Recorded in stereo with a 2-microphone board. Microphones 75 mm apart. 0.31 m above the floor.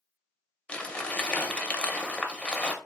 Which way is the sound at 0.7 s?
15° left (ahead or behind).